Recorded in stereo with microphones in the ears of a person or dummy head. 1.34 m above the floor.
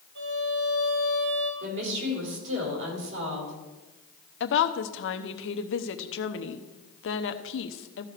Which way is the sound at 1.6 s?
70° right (ahead or behind).